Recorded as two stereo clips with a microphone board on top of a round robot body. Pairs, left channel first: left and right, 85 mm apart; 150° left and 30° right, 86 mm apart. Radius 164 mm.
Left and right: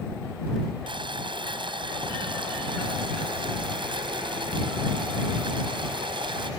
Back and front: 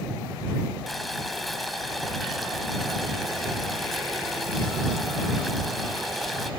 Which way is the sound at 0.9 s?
120° right.